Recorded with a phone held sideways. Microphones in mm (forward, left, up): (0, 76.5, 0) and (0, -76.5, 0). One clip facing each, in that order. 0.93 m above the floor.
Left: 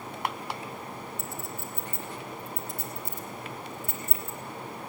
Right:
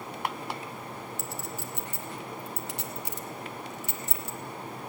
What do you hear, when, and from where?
1.2 s a clink: 75° right (ahead or behind), 0.8 m